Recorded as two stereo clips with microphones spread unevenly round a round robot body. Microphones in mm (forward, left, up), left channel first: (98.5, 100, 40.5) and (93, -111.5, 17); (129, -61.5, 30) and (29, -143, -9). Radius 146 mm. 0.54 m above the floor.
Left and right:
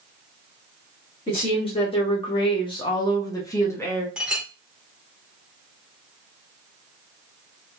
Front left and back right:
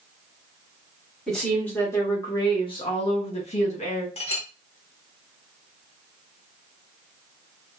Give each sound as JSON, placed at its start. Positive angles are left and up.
{"t": 1.3, "sound": "a woman speaking", "azimuth_deg": 150, "distance_m": 1.0}
{"t": 4.2, "sound": "a clink", "azimuth_deg": -5, "distance_m": 1.3}